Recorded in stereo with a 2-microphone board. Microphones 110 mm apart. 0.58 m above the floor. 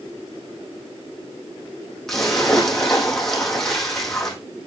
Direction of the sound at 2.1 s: Centre (ahead or behind).